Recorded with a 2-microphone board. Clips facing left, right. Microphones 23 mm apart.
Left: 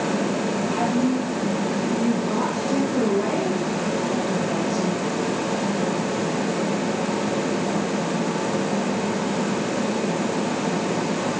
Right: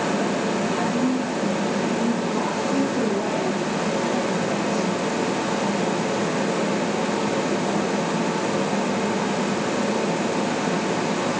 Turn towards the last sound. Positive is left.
turn(degrees=60)  # may be behind; listen again after turning